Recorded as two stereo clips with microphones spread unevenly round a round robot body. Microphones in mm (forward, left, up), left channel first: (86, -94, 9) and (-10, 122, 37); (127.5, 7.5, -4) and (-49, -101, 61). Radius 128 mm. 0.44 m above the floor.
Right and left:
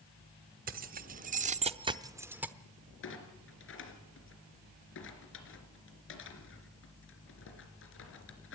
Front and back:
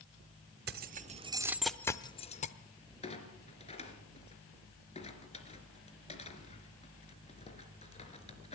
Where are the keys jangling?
165° left, 1.0 m; by 2.5 s 25° left, 1.0 m.